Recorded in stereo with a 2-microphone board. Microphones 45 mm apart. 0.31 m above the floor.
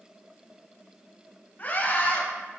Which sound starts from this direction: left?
A scream, at 1.6 s.